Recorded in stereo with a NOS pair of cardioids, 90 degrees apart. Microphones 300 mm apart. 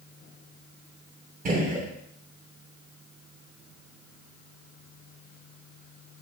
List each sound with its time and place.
1.4 s a gunshot: 30° right, 0.9 m